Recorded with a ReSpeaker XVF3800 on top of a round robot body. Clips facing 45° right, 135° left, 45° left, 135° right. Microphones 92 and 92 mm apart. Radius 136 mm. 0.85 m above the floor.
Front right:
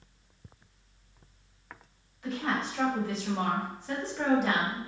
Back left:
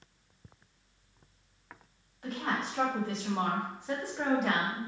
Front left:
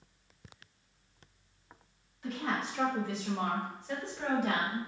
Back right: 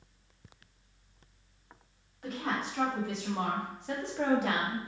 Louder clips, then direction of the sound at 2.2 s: Front right 2 dB, even; 175° right.